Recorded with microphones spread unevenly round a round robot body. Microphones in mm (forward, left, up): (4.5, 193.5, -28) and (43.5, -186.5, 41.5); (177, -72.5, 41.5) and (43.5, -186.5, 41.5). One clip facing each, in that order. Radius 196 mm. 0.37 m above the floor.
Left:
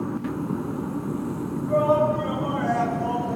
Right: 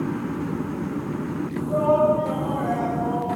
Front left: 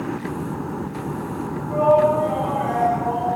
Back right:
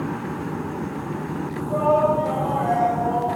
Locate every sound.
1.7 s a shout: 155° left, 4.5 m; by 3.4 s 145° left, 3.5 m